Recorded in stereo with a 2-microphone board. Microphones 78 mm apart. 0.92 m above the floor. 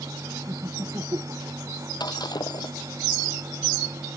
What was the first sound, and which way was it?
Laughter, 40° right (ahead or behind).